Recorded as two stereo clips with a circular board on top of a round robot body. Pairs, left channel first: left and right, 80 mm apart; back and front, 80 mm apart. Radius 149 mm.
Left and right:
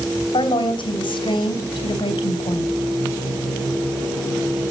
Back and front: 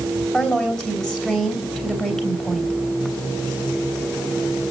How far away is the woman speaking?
About 3.5 m.